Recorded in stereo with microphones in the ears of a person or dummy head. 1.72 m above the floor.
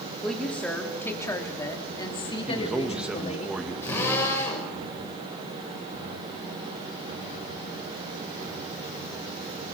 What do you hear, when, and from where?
0.2 s a woman speaking: centre (ahead or behind), 3.5 m; by 3.5 s 35° left (ahead or behind), 3 m
2.5 s a man speaking: 5° right (ahead or behind), 2 m
3.8 s a drill: 15° left (ahead or behind), 6 m